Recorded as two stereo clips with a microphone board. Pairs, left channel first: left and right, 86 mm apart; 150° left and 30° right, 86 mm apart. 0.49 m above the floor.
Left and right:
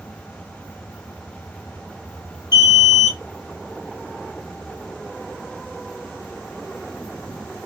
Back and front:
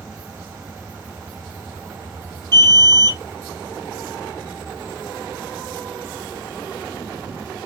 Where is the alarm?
115° left, 0.9 m.